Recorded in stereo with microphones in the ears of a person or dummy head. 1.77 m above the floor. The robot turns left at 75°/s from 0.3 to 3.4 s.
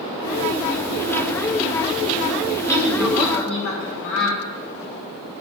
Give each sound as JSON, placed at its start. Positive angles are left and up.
{"t": 2.7, "sound": "a woman speaking", "azimuth_deg": 160, "distance_m": 3.5}